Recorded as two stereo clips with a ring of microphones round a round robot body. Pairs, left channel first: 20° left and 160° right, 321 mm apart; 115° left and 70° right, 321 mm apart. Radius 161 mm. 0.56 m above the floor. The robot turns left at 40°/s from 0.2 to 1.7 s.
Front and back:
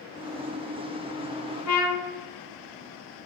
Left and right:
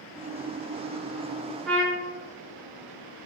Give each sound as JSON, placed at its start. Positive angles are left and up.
{"t": 1.6, "sound": "a trumpet", "azimuth_deg": 25, "distance_m": 0.7}